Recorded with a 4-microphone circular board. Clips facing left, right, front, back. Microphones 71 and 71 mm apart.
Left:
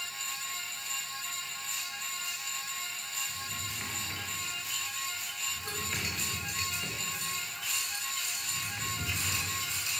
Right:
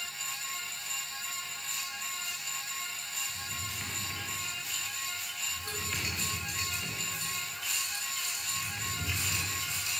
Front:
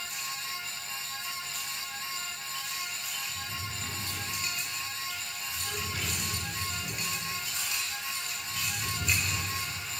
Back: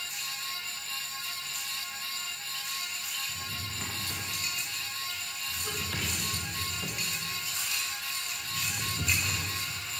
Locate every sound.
3.3 s a drawer: 170° left, 8 m